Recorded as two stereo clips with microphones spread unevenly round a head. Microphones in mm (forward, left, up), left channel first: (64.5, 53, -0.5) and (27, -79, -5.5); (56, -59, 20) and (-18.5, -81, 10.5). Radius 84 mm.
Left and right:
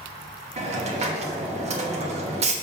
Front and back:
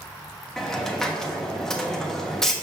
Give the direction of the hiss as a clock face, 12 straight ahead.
2 o'clock.